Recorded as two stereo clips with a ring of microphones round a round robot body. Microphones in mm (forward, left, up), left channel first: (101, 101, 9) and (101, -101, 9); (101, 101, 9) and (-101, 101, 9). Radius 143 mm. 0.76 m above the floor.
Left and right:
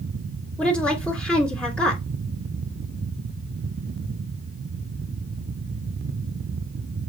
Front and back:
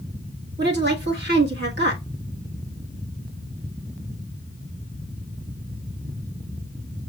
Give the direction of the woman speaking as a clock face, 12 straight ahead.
6 o'clock.